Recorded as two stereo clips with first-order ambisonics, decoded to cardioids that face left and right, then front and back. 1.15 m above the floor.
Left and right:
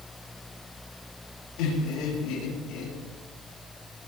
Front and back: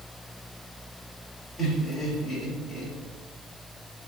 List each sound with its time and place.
1.6 s laughter: 100° left, 8.5 m